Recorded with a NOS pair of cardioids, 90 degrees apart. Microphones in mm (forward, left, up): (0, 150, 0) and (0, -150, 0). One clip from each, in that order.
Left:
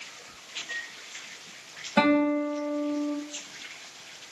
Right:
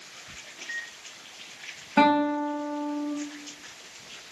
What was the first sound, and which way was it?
A microwave, 10° right.